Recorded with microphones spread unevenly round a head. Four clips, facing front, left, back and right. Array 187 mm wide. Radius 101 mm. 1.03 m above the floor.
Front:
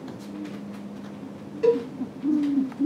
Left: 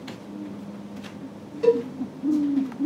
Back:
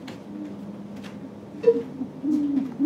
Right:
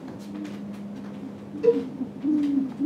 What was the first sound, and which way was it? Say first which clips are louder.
A cowbell: left 1 dB, back 1 dB; 40° left.